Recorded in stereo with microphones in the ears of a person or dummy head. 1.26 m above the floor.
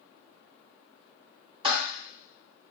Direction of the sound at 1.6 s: 30° right (ahead or behind).